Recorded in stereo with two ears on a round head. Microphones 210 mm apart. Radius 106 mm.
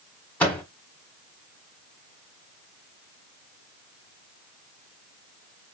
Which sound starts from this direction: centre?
A microwave, at 0.4 s.